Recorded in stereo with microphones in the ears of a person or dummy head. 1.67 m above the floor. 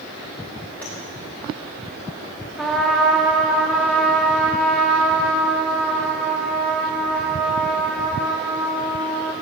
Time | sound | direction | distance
0.8 | tapping | 5° left (ahead or behind) | 2.5 m
2.6 | a trumpet | 5° right (ahead or behind) | 1.2 m